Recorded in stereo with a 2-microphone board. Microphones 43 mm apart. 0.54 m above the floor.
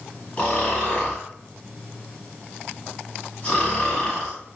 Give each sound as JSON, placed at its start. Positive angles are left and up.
{"t": 0.4, "sound": "snoring", "side_deg": 30, "distance_m": 2.0}